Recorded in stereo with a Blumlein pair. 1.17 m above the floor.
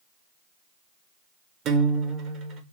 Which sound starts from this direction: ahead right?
A guitar, at 1.6 s.